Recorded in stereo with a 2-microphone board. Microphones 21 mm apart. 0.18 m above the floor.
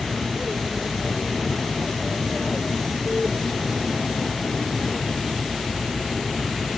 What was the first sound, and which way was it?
An aircraft, 20° left (ahead or behind).